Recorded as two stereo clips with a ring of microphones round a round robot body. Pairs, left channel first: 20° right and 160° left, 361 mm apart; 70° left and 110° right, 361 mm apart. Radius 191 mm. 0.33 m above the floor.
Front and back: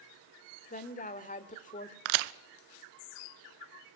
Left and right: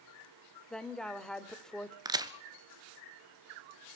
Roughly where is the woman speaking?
Ahead.